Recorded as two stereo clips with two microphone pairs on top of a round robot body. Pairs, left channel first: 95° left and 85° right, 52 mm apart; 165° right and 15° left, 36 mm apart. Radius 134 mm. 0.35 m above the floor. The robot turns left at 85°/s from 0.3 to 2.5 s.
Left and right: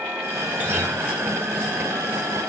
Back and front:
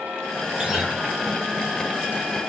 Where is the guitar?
45° right, 1.6 m; by 1.0 s 75° right, 1.6 m.